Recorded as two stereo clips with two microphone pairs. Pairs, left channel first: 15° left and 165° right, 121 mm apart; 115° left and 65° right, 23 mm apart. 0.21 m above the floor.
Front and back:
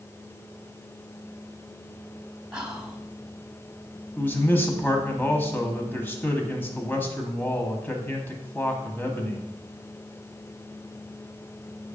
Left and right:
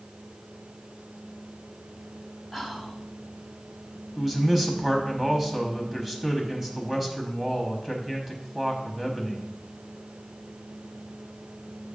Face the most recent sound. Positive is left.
turn(degrees=-20)